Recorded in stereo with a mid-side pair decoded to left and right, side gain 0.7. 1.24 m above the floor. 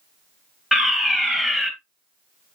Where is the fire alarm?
10° left, 3 m.